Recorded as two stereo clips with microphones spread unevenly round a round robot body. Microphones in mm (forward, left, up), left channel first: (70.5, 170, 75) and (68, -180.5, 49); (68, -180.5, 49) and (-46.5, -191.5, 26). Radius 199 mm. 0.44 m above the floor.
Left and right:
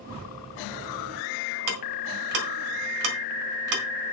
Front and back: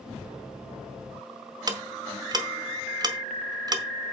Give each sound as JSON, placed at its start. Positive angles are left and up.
{"t": 1.7, "sound": "ticking", "azimuth_deg": -125, "distance_m": 1.7}